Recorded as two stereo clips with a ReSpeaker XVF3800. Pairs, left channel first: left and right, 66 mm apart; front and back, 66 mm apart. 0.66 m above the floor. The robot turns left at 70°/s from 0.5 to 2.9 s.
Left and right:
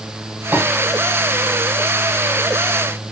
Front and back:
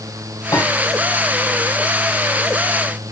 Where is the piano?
25° right, 5 m; by 0.7 s 40° right, 5 m.